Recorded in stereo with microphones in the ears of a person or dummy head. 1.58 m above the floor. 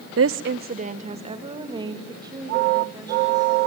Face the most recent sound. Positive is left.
turn(degrees=-10)  # may be behind; listen again after turning